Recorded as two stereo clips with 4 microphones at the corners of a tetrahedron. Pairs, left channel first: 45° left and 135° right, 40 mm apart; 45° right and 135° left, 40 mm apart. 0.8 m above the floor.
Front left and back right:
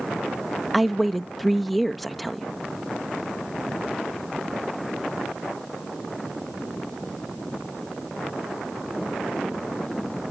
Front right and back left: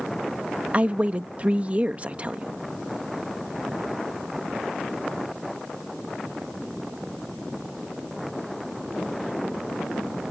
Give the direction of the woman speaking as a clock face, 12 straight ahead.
8 o'clock.